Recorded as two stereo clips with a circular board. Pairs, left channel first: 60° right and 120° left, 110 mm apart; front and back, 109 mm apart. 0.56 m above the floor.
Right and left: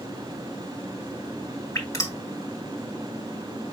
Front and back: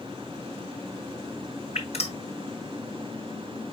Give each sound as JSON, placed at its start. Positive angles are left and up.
{"t": 1.8, "sound": "dripping", "azimuth_deg": 0, "distance_m": 3.0}